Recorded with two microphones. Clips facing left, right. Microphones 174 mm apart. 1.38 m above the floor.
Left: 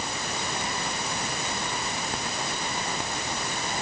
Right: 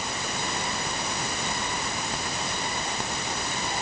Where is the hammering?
No hammering in this recording.